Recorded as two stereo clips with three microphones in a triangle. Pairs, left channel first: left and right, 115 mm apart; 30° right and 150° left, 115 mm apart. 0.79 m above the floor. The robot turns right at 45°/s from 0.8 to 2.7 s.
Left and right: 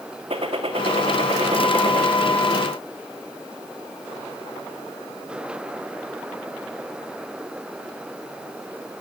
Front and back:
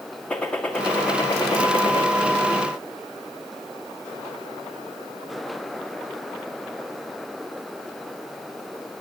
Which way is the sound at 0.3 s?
110° right.